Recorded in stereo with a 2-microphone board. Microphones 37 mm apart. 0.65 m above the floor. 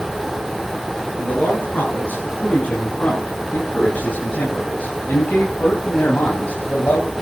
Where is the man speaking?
40° left (ahead or behind), 7 m; by 7.1 s 55° left (ahead or behind), 4 m.